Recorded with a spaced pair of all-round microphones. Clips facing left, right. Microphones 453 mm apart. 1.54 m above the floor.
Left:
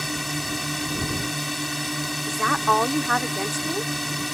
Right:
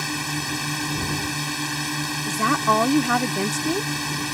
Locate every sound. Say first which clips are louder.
0.0 s a drone: right 1 dB; 5° right (ahead or behind)
2.3 s a woman speaking: right 3 dB; 55° right (ahead or behind)